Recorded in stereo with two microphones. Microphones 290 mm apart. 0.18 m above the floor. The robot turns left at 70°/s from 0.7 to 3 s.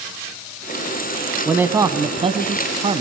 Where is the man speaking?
5° right (ahead or behind), 1.2 m; by 3.0 s 20° right (ahead or behind), 1.2 m.